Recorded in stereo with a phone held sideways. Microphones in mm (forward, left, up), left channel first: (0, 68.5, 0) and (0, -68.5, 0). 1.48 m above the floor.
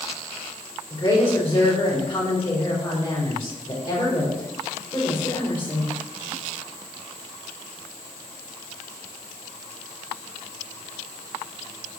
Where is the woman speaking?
30° left (ahead or behind), 5 m.